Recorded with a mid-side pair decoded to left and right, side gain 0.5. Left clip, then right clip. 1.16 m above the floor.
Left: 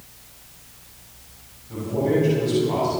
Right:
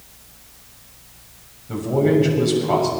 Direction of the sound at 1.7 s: 65° right.